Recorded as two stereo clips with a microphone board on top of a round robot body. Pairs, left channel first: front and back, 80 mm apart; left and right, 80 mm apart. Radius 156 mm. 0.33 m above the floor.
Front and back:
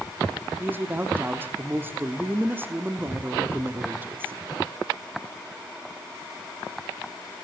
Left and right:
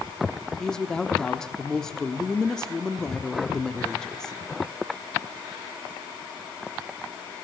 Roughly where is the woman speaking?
Behind.